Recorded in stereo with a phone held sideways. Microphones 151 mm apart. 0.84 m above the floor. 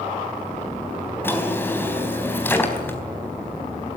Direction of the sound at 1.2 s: 15° left (ahead or behind).